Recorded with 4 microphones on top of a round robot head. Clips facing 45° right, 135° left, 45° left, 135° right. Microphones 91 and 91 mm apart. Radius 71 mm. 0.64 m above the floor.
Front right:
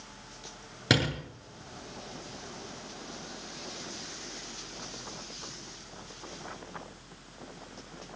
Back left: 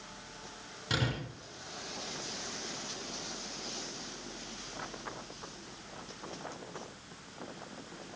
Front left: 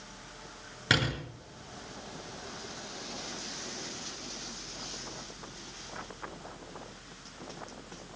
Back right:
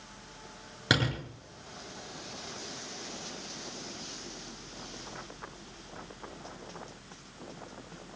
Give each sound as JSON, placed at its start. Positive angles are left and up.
{"t": 0.9, "sound": "a door slam", "azimuth_deg": -60, "distance_m": 9.0}